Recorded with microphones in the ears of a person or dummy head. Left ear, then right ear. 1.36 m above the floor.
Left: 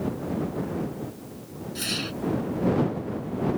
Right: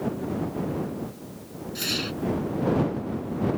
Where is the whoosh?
5° right (ahead or behind).